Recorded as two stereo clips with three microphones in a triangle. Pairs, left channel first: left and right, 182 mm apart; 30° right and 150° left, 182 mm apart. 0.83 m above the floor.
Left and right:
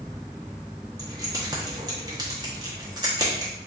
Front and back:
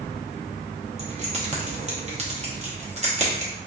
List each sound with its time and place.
1.0 s keys jangling: 155° right, 0.9 m